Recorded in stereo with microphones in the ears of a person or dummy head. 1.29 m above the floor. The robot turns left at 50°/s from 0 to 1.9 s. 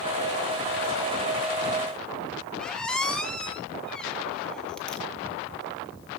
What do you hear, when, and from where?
2.6 s a squeak: 5° left (ahead or behind), 0.8 m